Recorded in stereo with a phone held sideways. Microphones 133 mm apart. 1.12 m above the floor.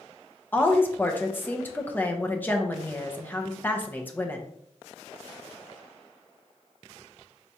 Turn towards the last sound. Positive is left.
turn(degrees=15)  # may be behind; listen again after turning